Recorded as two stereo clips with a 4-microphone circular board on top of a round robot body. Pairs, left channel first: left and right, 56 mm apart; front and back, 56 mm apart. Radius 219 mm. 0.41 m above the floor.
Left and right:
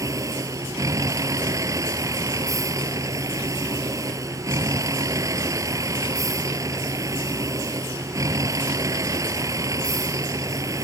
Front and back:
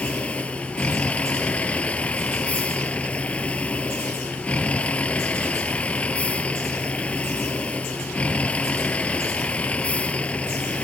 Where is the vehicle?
70° right.